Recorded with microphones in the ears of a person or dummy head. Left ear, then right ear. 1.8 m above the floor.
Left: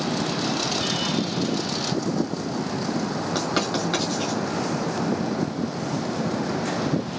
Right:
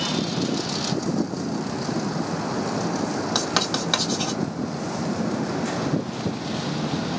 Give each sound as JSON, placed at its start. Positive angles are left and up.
{"t": 3.4, "sound": "writing", "side_deg": -25, "distance_m": 1.6}